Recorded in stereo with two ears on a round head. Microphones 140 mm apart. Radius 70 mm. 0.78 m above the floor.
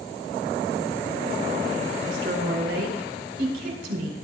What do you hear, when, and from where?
2.0 s a woman speaking: 75° right (ahead or behind), 4 m